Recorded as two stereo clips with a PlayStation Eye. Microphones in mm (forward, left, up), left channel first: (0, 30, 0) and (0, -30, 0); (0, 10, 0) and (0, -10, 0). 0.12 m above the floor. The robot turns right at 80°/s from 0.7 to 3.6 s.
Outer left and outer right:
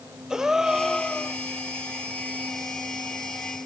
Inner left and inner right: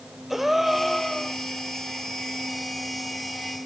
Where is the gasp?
10° right, 0.8 m; by 1.4 s 45° left, 0.8 m.